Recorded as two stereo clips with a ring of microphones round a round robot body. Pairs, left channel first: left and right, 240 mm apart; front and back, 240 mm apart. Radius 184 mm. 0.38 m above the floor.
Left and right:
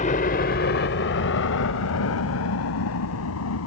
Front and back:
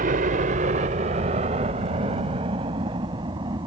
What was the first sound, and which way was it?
A helicopter, 140° left.